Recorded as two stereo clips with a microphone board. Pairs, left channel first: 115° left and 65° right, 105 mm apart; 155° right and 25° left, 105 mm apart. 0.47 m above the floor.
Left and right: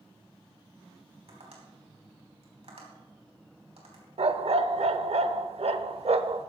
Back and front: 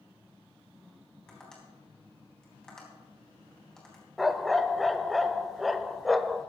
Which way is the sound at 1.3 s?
75° right.